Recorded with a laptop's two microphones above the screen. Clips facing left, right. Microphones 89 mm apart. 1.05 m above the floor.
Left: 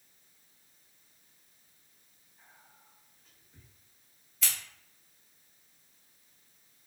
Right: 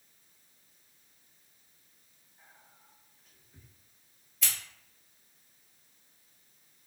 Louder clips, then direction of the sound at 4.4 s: Even; centre (ahead or behind).